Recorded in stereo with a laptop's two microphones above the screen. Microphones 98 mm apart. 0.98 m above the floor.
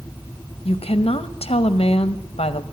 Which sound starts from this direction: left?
A woman speaking, at 0.7 s.